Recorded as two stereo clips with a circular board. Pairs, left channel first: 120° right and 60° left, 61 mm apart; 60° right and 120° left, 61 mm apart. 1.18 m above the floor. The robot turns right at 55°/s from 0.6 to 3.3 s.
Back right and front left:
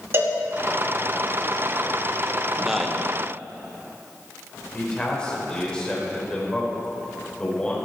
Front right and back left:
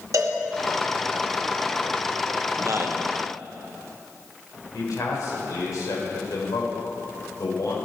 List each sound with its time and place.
0.1 s a cowbell: 110° left, 2 m
2.6 s a man speaking: 135° left, 1.2 m; by 3.0 s 165° left, 1.2 m
4.7 s a man speaking: 45° right, 4.5 m